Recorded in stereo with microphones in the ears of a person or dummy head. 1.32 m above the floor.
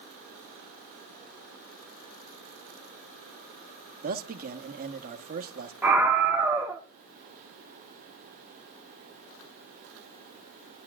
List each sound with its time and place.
4.0 s a man speaking: 50° right (ahead or behind), 1.2 m
5.8 s a scream: 10° right (ahead or behind), 1.0 m